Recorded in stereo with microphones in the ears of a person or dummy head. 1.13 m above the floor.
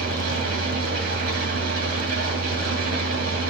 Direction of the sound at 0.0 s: 50° right (ahead or behind).